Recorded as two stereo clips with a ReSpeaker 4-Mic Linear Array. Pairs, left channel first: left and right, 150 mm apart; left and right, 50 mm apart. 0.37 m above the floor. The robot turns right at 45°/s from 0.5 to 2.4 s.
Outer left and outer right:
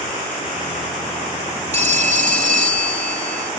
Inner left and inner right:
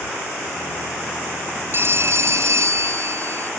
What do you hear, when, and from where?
1.7 s a phone ringing: 125° right; by 3.5 s 95° right